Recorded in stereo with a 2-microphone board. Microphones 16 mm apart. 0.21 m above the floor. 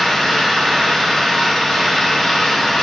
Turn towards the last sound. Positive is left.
turn(degrees=50)  # may be behind; listen again after turning